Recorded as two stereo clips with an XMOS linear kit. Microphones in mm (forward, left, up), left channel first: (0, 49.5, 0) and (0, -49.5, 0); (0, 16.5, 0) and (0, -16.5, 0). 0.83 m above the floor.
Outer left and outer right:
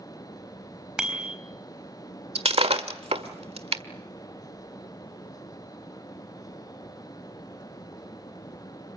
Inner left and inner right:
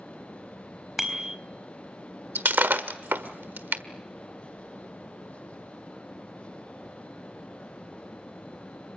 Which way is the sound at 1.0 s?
10° right (ahead or behind).